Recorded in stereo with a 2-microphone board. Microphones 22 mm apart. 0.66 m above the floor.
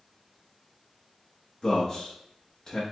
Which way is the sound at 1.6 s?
20° left (ahead or behind).